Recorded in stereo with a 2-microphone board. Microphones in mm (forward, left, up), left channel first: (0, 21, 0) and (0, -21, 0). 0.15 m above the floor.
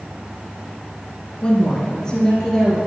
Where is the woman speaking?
20° left (ahead or behind), 1.8 m; by 2.8 s 15° left (ahead or behind), 3 m.